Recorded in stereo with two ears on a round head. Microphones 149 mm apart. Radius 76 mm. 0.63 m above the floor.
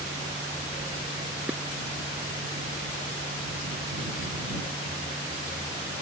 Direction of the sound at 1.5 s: 10° right (ahead or behind).